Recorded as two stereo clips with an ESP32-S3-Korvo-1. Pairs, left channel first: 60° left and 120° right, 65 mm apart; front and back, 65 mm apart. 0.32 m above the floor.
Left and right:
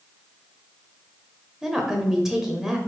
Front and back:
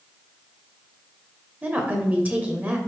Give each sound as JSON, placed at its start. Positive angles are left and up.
{"t": 1.6, "sound": "a woman speaking", "azimuth_deg": 165, "distance_m": 0.9}